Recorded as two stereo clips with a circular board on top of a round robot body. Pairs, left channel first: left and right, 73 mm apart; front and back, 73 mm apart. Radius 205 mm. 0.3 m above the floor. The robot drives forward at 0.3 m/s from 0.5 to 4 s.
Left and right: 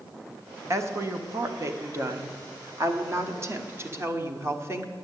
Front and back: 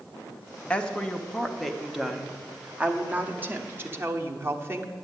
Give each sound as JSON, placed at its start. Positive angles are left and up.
{"t": 0.7, "sound": "a woman speaking", "azimuth_deg": -65, "distance_m": 1.3}